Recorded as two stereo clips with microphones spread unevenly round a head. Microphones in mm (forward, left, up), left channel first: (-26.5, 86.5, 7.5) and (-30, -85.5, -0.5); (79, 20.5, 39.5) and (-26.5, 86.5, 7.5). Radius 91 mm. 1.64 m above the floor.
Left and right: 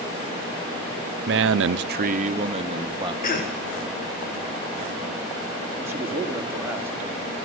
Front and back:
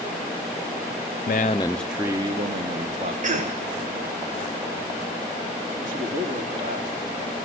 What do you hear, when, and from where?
1.3 s a man speaking: 55° right, 0.5 m; by 3.1 s 155° right, 1.6 m
3.2 s a cough: 130° left, 1.7 m
5.8 s a man speaking: 170° right, 3 m